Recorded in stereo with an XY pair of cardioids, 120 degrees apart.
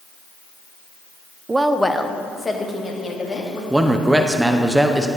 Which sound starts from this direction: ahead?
A man speaking, at 3.7 s.